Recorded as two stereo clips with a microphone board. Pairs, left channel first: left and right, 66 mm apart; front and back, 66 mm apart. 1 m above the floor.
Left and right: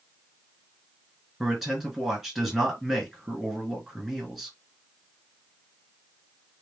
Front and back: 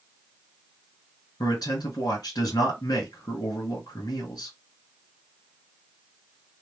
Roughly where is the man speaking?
Ahead.